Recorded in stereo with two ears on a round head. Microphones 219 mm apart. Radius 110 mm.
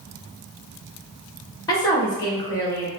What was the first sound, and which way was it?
A woman speaking, 15° left (ahead or behind).